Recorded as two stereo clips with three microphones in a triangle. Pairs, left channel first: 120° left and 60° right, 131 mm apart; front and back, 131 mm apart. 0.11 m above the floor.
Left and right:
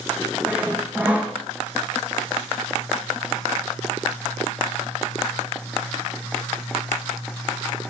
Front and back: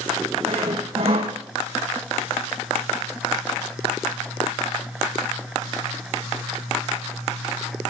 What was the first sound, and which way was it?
Sawing, 135° right.